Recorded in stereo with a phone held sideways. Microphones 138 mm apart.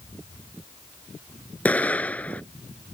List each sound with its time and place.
1.6 s an explosion: 10° left (ahead or behind)